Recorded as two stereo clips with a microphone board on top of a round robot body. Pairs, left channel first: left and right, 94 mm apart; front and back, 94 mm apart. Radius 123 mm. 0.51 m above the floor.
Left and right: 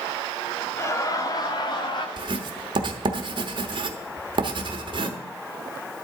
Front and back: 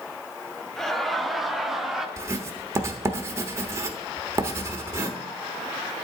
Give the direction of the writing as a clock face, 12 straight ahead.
4 o'clock.